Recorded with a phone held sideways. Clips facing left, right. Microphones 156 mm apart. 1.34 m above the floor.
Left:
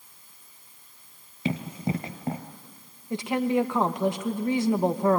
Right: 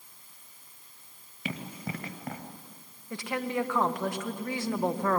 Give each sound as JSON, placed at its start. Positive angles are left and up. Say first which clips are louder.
{"t": 1.4, "sound": "running footsteps", "louder": "left 8 dB", "side_deg": 25, "distance_m": 1.5}
{"t": 3.1, "sound": "a woman speaking", "louder": "left 7 dB", "side_deg": 20, "distance_m": 1.4}